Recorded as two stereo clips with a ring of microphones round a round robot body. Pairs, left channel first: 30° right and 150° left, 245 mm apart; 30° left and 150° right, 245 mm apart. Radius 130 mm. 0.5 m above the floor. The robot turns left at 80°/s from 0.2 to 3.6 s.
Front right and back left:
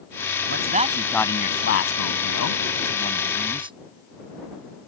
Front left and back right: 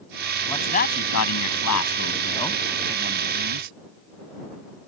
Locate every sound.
0.5 s a man speaking: 110° left; by 3.8 s 140° right